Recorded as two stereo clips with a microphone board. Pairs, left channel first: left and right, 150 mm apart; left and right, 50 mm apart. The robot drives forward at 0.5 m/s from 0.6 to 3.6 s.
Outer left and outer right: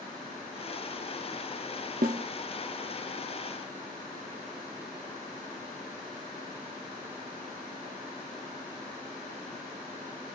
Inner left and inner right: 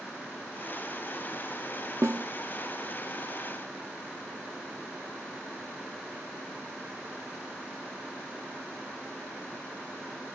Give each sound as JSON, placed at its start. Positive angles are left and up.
{"t": 2.0, "sound": "a snare drum", "side_deg": -70, "distance_m": 0.8}